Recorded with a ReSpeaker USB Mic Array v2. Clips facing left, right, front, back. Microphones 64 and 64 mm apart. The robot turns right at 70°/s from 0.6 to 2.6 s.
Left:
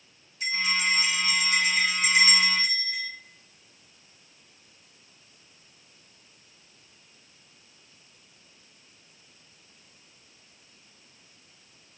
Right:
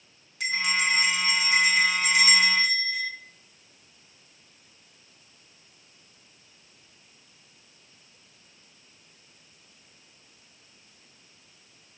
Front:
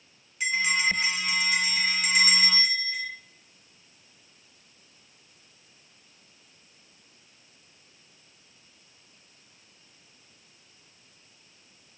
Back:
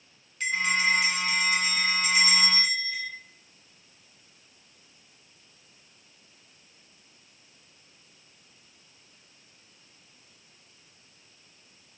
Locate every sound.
0.4 s a bell: 85° right, 0.7 m; by 3.1 s 55° left, 0.7 m